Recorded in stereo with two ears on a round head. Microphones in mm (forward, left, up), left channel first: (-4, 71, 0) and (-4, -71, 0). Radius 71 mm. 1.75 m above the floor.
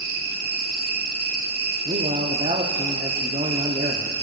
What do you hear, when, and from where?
0.0 s an insect: 60° right (ahead or behind), 1.2 m
1.9 s a man speaking: 35° right (ahead or behind), 0.9 m